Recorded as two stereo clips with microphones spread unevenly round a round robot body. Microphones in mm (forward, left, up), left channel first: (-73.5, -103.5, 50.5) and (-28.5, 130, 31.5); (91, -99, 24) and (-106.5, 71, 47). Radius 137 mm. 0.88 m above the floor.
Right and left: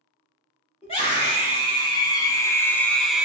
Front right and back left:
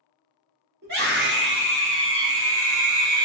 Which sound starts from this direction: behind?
A scream, at 0.8 s.